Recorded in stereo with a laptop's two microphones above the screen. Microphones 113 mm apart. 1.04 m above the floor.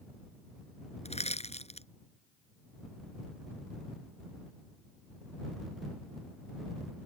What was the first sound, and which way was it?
Crushing, 70° left (ahead or behind).